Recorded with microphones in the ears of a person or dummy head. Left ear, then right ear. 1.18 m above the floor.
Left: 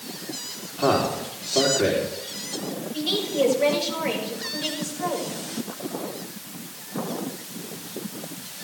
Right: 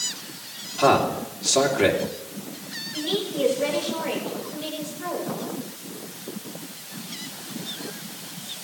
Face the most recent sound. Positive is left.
turn(degrees=25)  # may be behind; listen again after turning